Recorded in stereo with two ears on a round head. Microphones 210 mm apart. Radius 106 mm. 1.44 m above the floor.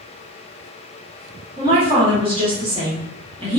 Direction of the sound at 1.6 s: 25° right (ahead or behind).